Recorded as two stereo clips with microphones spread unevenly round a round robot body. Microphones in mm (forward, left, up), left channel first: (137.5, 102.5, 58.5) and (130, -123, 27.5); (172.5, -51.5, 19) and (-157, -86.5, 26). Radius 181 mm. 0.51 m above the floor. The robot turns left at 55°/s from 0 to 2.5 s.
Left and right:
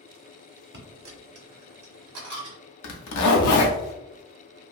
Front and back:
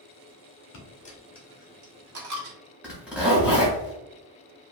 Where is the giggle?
No giggle in this recording.